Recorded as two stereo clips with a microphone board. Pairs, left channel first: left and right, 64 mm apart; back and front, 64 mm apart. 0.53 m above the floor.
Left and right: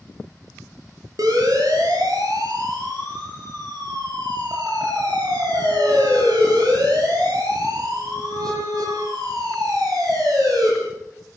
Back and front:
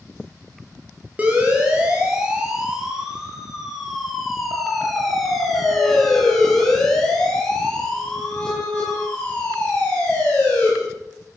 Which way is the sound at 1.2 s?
70° right.